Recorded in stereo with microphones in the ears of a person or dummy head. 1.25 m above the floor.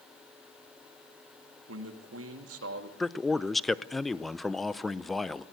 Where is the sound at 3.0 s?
5° left (ahead or behind), 0.6 m.